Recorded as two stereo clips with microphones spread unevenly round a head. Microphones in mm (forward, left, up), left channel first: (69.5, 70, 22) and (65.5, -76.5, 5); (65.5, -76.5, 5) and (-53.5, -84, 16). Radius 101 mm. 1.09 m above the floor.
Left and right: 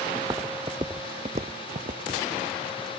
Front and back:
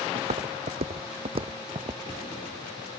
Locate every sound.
0.1 s footsteps: 170° right; by 2.0 s 135° right